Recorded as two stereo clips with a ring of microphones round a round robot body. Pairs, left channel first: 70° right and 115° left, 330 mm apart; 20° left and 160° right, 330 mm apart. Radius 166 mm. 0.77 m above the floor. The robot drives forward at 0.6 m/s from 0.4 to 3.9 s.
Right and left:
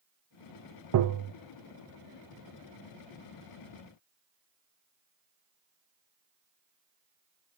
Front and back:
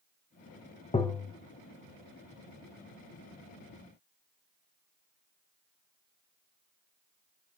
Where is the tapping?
90° left, 0.6 m; by 1.3 s 120° left, 0.6 m.